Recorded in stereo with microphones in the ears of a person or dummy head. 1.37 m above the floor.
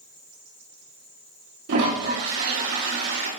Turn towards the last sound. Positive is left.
turn(degrees=-75)  # may be behind; listen again after turning